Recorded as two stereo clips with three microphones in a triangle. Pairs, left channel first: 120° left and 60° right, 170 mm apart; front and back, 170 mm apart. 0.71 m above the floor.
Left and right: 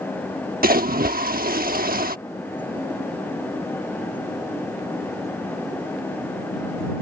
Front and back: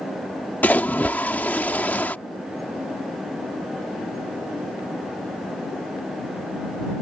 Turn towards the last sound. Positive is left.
turn(degrees=-80)